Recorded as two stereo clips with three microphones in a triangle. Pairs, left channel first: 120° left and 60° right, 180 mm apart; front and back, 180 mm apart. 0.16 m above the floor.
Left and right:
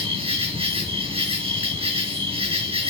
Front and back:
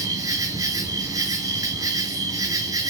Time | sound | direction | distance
0.0 | an insect | 110° right | 4 m